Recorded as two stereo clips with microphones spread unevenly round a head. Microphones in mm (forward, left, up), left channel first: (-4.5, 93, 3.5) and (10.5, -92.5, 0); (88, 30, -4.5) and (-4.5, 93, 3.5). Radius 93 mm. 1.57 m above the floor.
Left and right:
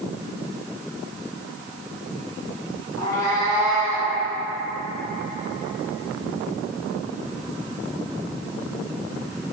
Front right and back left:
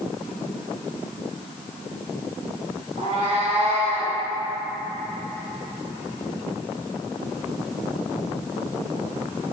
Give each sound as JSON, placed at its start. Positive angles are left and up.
{"t": 3.0, "sound": "a cat meowing", "azimuth_deg": 165, "distance_m": 3.5}